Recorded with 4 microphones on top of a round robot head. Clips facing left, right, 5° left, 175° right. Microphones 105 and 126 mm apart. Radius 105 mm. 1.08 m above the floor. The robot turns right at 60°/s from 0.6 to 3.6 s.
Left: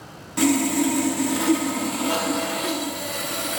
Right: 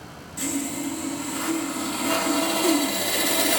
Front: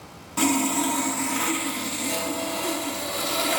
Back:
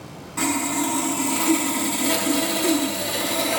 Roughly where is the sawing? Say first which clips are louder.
Left 9 dB, front 1 dB; left.